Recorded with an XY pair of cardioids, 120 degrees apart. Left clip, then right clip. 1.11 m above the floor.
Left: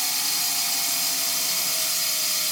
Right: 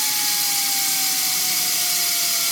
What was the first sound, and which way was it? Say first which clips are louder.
Running water: right 3 dB; 70° right.